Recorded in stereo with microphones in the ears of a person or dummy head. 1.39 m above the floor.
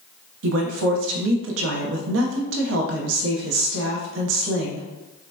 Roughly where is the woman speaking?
Right.